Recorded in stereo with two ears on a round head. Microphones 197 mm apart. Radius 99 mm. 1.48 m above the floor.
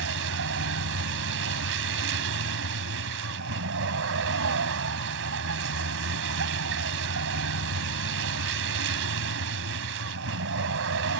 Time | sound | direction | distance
0.0 | a vehicle | 65° right (ahead or behind) | ?